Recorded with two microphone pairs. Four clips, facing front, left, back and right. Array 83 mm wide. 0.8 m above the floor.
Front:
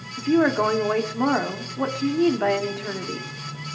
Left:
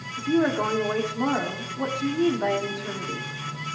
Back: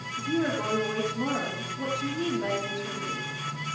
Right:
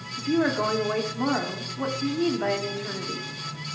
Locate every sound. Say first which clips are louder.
0.2 s a woman speaking: left 1 dB, front 9 dB; 5° left, 2 m